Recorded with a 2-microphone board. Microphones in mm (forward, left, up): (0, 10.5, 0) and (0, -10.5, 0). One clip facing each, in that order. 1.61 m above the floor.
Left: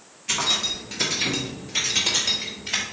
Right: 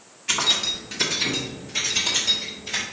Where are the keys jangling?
20° right (ahead or behind), 1.1 m; by 2.8 s 30° left (ahead or behind), 1.8 m.